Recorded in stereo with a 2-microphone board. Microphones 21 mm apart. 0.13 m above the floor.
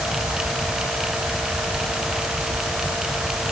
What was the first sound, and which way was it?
Only background noise.